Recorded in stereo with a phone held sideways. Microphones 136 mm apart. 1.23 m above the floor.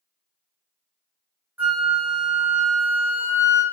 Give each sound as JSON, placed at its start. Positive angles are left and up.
{"t": 1.6, "sound": "a flute", "side_deg": -15, "distance_m": 1.7}